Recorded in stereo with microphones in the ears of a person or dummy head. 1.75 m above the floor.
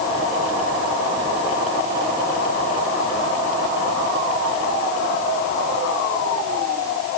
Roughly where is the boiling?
No boiling in this recording.